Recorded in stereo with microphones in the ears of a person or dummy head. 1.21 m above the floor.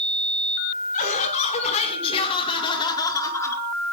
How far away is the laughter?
About 6 m.